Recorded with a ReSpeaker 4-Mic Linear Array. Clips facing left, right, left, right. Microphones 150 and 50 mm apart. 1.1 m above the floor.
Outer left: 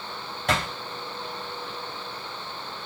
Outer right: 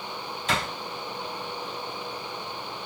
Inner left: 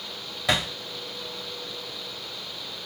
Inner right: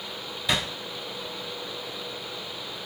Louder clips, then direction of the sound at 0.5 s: Outer left 3 dB, inner left 2 dB; 70° left (ahead or behind).